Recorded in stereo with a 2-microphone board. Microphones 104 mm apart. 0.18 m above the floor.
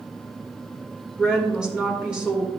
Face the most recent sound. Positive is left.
turn(degrees=-10)  # may be behind; listen again after turning